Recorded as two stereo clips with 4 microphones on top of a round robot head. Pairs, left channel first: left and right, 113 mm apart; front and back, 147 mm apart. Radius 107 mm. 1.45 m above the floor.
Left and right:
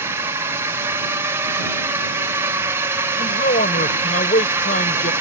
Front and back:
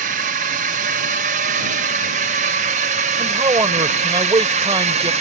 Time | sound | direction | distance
0.0 | a drone | 160° right | ?
3.2 | a man speaking | 120° left | ?